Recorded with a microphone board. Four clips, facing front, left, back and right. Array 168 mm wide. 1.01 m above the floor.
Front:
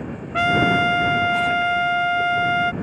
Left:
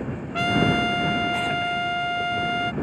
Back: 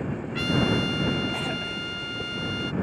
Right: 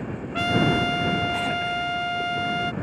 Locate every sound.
0.3 s a trumpet: 5° left